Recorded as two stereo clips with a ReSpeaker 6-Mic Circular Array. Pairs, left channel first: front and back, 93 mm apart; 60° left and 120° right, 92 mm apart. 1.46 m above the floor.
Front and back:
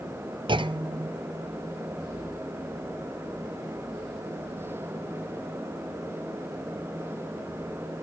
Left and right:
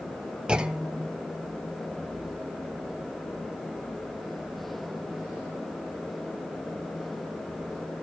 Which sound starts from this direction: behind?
A clunk, at 0.5 s.